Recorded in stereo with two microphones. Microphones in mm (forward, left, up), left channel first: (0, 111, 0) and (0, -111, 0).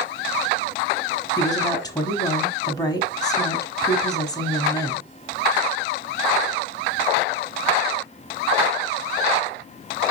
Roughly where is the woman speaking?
Centre.